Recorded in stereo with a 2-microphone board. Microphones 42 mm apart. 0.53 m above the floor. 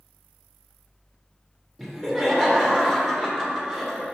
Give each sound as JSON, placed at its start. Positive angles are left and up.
{"t": 1.8, "sound": "laughter", "side_deg": 5, "distance_m": 1.9}